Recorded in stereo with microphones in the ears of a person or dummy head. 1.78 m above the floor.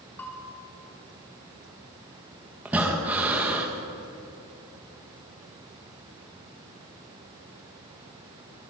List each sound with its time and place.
0.2 s a bell: 10° left (ahead or behind), 4.5 m
2.6 s breathing: 5° right (ahead or behind), 3 m